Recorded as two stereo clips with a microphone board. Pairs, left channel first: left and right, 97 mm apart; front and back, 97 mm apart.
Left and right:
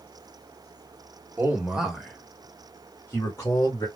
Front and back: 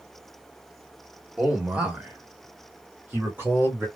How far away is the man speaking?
About 1.4 m.